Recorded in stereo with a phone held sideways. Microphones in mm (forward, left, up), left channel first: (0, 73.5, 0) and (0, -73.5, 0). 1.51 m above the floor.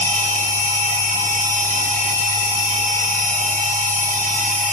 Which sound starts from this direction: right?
A machine running, at 0.0 s.